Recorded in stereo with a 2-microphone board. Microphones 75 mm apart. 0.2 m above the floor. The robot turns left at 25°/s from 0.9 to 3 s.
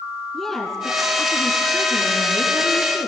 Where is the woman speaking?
175° left, 2 m; by 3.1 s 125° left, 2 m.